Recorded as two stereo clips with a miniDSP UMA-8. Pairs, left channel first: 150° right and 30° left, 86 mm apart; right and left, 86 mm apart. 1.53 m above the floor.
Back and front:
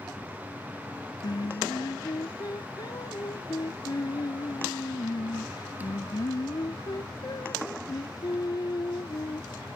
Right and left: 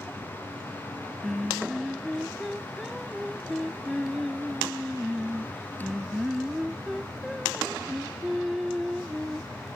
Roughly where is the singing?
Behind.